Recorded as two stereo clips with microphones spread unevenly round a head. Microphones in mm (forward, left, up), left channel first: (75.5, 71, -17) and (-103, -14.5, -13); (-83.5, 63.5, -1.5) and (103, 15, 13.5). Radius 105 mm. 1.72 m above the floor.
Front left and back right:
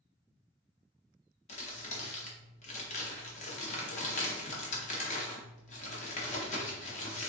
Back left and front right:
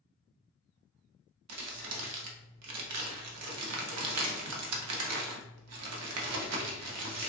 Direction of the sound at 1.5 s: 35° right.